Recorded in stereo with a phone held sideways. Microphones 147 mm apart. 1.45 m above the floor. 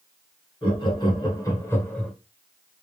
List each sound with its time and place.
0.6 s laughter: 35° left (ahead or behind), 1.7 m; by 2.1 s 5° left (ahead or behind), 0.8 m